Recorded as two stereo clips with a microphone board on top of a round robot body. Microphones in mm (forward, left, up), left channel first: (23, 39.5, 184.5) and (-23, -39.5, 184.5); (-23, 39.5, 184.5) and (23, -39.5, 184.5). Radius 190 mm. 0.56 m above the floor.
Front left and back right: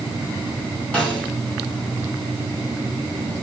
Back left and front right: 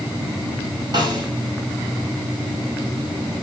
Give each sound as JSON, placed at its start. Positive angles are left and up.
{"t": 0.9, "sound": "a snare drum", "azimuth_deg": -15, "distance_m": 5.5}